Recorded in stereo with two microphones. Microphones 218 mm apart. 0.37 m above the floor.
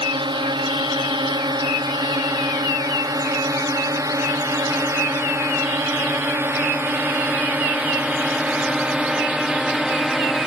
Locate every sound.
0.0 s a drone: 20° right (ahead or behind); by 10.5 s centre (ahead or behind)